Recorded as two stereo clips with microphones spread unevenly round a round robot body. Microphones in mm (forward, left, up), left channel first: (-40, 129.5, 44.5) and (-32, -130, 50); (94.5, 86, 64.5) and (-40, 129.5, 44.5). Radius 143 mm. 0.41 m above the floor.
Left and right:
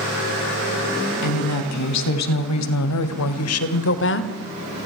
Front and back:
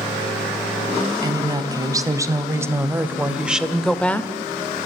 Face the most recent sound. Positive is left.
turn(degrees=60)